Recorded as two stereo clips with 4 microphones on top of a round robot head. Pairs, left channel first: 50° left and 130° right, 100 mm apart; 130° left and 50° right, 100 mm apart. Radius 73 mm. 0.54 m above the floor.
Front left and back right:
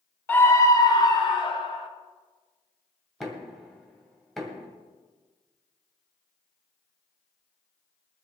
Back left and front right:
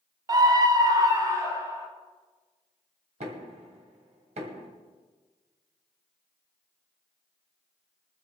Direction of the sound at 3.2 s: 40° right.